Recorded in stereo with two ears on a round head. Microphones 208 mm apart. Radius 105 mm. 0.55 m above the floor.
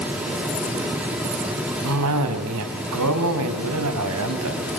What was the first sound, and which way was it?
A cough, 65° right (ahead or behind).